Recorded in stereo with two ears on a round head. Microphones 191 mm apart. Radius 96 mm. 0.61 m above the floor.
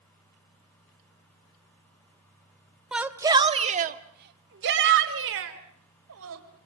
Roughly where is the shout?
Centre.